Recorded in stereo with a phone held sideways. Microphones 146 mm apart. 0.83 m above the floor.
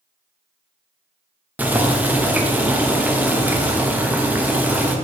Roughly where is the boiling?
Centre.